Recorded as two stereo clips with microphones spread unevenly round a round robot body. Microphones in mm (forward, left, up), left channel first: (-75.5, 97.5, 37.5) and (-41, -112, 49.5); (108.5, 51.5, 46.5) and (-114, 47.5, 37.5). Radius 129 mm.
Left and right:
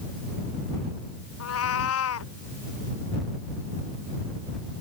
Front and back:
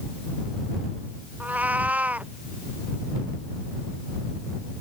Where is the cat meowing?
100° left.